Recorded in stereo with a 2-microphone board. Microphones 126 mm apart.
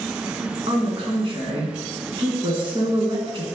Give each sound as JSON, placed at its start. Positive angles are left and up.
{"t": 0.7, "sound": "a woman speaking", "side_deg": -45, "distance_m": 2.0}